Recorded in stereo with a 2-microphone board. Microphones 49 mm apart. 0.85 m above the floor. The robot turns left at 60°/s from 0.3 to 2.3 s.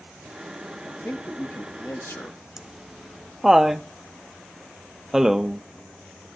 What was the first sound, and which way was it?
A man speaking, 145° left.